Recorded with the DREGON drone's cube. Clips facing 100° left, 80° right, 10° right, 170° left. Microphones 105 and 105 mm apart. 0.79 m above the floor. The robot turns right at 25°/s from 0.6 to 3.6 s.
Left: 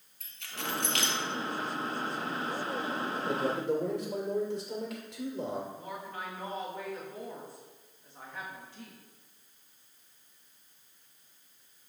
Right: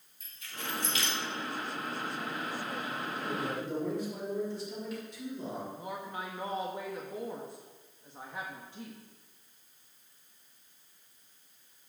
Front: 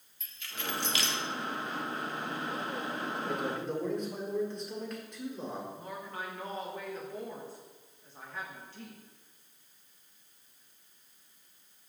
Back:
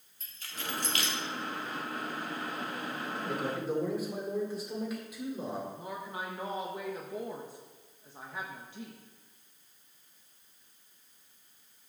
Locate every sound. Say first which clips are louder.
0.2 s keys jangling: left 3 dB, front 1 dB; 115° left, 1.1 m; by 1.2 s 130° left, 1.1 m
3.1 s a man speaking: left 4 dB, back 1 dB; 75° left, 2 m; by 5.7 s 85° left, 2 m
5.8 s a woman speaking: right 1 dB, back 2 dB; 130° right, 0.9 m